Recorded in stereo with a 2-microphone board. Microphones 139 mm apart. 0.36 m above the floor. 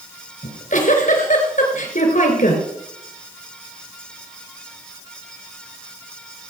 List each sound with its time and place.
0.4 s a giggle: 70° left (ahead or behind), 3.5 m